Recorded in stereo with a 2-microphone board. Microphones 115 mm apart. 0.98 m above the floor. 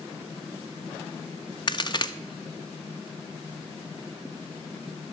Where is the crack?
40° left (ahead or behind), 0.5 m.